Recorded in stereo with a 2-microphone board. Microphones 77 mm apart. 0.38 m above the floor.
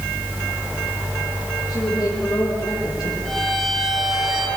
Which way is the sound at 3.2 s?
Centre (ahead or behind).